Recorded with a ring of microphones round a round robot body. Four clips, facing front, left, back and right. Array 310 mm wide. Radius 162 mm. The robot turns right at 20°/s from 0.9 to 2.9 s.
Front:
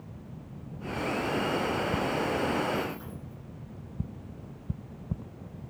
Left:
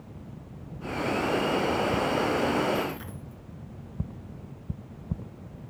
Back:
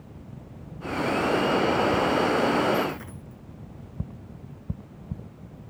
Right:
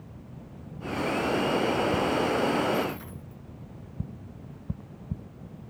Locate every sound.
2.7 s a dropped coin: 165° left, 2.5 m; by 3.4 s 170° left, 2.5 m